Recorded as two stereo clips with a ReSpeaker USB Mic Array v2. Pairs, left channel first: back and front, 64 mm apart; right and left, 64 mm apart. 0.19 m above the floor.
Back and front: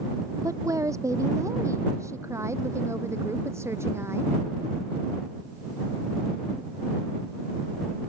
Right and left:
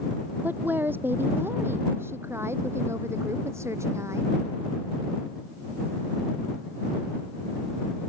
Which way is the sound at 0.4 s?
30° left.